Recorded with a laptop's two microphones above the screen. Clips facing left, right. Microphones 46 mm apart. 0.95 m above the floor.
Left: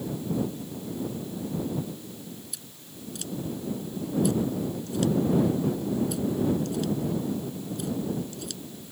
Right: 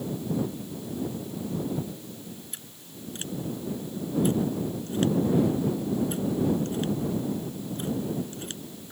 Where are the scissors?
35° right (ahead or behind).